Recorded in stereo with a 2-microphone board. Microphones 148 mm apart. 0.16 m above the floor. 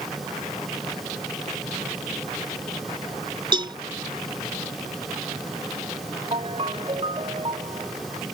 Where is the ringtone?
40° right (ahead or behind).